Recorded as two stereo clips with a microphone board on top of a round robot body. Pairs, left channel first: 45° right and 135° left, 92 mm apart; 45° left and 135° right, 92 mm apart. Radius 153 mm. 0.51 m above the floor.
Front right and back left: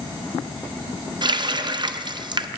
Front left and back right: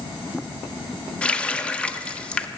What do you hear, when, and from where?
1.2 s a running tap: 120° left, 0.7 m